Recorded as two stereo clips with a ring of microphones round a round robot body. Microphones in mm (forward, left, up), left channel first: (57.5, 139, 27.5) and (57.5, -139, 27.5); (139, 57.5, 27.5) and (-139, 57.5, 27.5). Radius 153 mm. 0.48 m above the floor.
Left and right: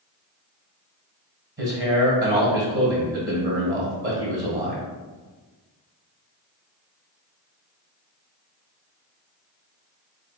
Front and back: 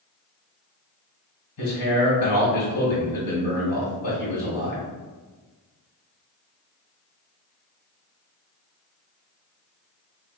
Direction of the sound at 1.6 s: 40° right.